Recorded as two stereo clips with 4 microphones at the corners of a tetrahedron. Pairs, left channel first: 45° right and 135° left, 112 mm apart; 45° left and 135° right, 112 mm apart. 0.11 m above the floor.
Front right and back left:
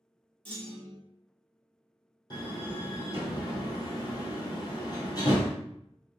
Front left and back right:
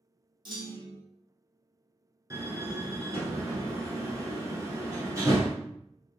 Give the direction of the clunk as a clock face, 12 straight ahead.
6 o'clock.